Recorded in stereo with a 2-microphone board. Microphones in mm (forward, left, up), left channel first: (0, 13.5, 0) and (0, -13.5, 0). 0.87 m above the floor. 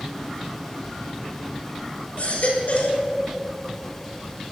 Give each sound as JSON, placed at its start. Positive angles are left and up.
{"t": 2.2, "sound": "a baby crying", "side_deg": 70, "distance_m": 3.0}